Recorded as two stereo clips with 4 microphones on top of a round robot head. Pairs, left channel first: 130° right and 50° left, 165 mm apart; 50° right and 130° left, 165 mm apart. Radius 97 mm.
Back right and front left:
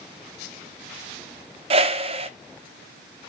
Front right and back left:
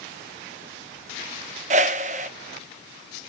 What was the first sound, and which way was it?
A whoosh, 95° left.